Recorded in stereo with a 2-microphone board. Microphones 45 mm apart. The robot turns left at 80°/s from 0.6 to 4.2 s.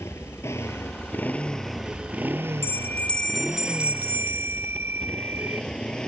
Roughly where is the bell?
Ahead left.